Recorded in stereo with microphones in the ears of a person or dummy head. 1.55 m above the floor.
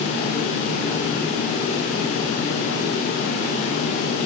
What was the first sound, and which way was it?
Only background noise.